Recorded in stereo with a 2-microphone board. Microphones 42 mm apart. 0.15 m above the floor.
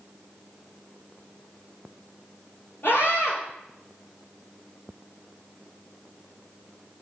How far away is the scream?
About 4 m.